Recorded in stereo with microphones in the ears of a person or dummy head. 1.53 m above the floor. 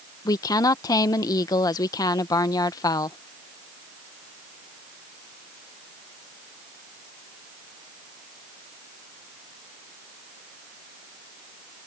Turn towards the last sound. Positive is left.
turn(degrees=15)  # may be behind; listen again after turning